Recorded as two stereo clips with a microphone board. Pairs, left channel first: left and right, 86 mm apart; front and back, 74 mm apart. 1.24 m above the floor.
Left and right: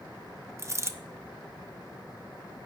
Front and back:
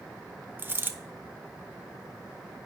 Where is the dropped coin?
130° right, 0.6 m.